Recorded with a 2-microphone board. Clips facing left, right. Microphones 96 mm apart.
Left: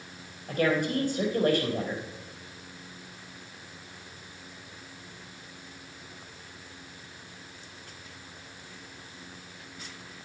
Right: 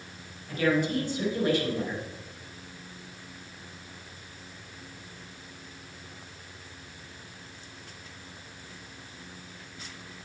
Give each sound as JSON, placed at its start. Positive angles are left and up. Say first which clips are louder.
{"t": 0.5, "sound": "a woman speaking", "louder": "even", "side_deg": 50, "distance_m": 3.5}